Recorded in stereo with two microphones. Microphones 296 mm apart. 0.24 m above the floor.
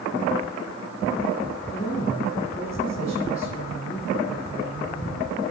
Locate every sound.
1.7 s a woman speaking: 25° left (ahead or behind), 9 m